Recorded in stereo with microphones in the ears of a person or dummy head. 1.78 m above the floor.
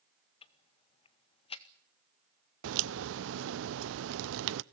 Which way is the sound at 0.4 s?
30° left (ahead or behind).